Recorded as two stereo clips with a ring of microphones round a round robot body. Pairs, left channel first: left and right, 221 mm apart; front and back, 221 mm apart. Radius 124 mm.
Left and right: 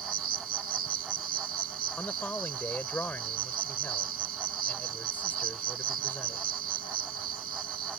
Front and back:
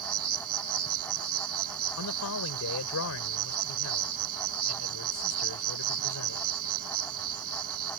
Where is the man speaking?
10° left.